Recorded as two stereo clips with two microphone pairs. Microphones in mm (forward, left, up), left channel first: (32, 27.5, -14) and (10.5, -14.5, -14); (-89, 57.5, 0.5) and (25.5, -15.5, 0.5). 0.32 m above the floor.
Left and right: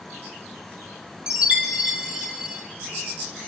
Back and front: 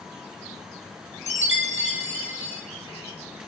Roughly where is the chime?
Behind.